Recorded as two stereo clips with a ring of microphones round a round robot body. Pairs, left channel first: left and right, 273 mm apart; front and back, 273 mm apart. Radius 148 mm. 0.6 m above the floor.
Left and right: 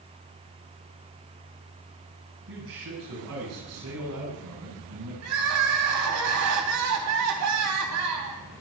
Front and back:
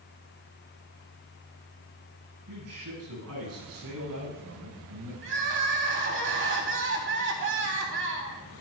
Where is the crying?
130° right, 3.5 m.